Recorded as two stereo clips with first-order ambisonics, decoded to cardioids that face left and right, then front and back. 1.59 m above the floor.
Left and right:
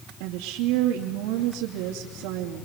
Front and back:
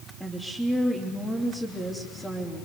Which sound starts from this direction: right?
A woman speaking, at 0.2 s.